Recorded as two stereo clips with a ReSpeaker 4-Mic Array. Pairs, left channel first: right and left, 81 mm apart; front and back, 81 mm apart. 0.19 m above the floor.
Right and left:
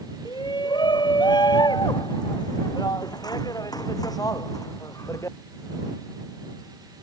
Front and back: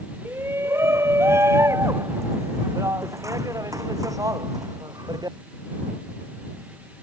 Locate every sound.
0.2 s a shout: 120° right; by 5.4 s 140° right